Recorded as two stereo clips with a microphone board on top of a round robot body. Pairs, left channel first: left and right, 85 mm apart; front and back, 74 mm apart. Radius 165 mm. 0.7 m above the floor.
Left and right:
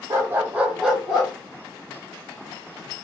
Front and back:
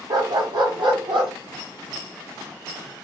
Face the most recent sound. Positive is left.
turn(degrees=175)